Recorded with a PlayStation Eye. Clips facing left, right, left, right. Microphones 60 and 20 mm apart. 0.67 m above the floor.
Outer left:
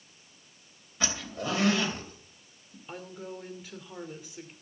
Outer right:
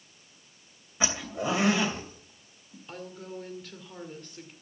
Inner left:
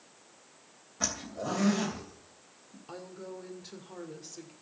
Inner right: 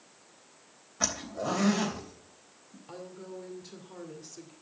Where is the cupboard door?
No cupboard door in this recording.